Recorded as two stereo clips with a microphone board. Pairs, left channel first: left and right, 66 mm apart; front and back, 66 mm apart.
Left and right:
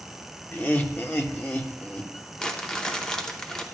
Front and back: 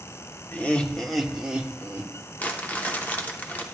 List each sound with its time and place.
0.5 s laughter: 45° left, 0.9 m; by 2.1 s 140° left, 1.1 m
2.4 s crumpling: 30° left, 0.9 m